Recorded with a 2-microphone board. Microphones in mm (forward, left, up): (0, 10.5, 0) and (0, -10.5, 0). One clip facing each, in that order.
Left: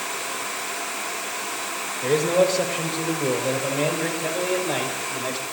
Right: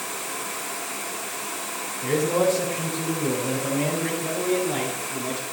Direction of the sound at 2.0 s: 75° left (ahead or behind).